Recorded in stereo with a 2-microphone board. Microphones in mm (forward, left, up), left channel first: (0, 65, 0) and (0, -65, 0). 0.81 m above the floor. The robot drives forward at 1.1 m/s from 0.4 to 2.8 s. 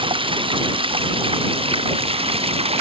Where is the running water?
40° right (ahead or behind); by 2.8 s 45° right (ahead or behind).